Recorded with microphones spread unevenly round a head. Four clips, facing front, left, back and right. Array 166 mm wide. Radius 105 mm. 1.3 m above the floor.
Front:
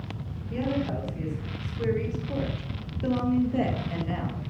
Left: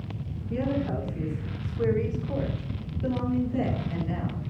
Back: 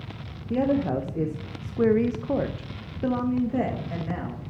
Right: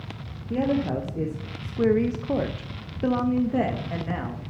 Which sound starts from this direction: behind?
A woman speaking, at 0.5 s.